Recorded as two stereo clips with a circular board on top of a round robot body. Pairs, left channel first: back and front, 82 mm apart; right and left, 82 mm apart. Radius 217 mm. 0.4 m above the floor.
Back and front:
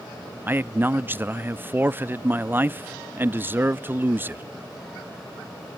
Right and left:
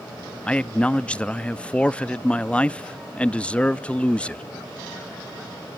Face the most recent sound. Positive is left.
turn(degrees=-30)